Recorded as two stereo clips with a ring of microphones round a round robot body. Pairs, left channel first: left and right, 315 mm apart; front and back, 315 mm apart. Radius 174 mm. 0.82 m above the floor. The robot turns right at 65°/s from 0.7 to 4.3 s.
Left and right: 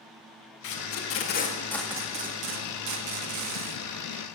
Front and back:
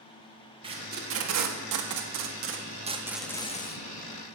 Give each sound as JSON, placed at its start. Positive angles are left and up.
{"t": 0.6, "sound": "tape being pulled", "azimuth_deg": 105, "distance_m": 1.7}